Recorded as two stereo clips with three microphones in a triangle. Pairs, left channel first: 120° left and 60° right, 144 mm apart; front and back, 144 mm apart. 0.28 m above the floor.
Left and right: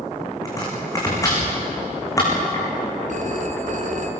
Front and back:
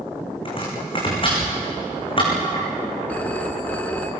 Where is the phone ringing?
80° right, 2 m.